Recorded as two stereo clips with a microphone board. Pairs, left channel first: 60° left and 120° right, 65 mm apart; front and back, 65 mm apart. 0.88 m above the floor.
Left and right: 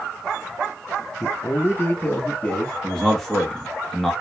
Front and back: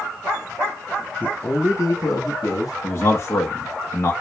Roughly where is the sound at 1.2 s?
Ahead left.